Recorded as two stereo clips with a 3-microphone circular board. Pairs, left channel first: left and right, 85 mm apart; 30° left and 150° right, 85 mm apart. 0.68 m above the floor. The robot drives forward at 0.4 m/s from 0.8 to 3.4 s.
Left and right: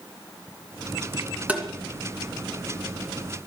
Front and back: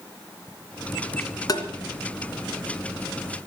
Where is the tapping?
15° right, 2.5 m.